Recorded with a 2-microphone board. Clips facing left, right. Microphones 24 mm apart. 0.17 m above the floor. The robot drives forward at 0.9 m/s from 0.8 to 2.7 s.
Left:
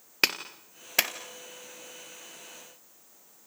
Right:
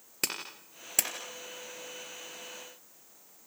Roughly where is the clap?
Left.